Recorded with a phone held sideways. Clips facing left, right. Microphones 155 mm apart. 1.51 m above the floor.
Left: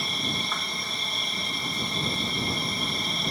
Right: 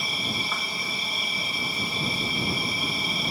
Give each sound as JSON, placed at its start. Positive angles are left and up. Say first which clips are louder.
{"t": 0.0, "sound": "an insect", "louder": "even", "side_deg": -5}